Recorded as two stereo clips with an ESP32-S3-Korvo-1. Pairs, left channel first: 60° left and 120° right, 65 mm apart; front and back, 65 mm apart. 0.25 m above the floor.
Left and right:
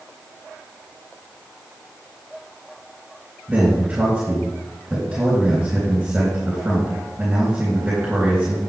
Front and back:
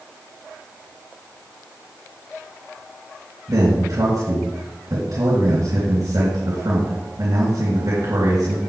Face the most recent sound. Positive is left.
turn(degrees=170)